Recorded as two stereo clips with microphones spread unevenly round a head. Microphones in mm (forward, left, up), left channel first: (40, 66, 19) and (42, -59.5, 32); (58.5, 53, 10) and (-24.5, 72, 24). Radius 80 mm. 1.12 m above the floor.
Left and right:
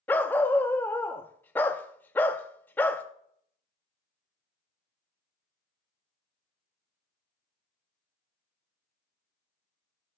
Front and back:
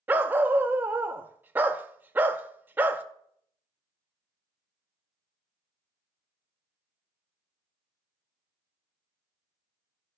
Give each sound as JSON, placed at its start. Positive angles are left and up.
{"t": 0.1, "sound": "a dog barking", "azimuth_deg": 170, "distance_m": 0.5}